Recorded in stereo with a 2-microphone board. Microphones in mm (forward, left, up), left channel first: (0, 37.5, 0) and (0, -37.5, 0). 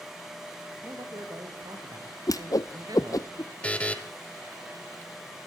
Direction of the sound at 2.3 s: 50° left (ahead or behind).